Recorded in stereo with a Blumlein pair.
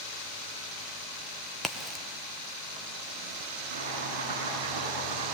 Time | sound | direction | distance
1.6 | a crack | 5° right | 1.3 m
3.7 | chopping | 60° right | 9 m